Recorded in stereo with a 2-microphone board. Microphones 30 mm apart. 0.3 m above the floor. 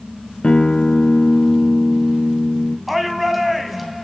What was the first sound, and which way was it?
A guitar, 40° left (ahead or behind).